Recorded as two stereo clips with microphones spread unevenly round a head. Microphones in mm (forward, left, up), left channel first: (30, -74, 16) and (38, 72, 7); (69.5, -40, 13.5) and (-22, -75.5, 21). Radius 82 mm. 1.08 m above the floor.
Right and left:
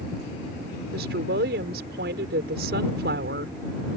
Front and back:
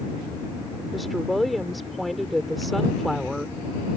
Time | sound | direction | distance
0.9 | a woman speaking | 110° left | ?